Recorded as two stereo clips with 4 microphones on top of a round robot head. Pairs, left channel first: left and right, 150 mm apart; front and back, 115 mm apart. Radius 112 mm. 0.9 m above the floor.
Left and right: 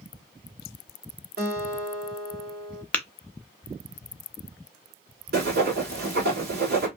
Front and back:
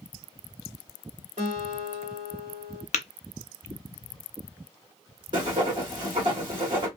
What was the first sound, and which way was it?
A guitar, 120° right.